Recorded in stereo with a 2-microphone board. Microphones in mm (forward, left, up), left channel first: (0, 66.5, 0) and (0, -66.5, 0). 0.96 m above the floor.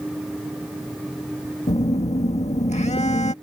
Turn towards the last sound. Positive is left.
turn(degrees=60)  # may be behind; listen again after turning